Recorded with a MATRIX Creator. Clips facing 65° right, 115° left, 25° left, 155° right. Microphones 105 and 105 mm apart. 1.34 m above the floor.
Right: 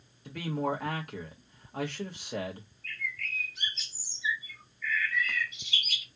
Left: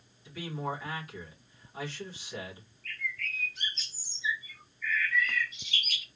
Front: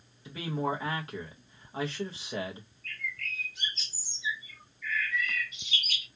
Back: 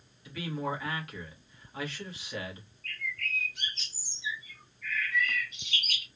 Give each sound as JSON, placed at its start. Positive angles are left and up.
{"t": 0.2, "sound": "a man speaking", "azimuth_deg": -40, "distance_m": 1.2}
{"t": 2.8, "sound": "a bird", "azimuth_deg": -155, "distance_m": 1.2}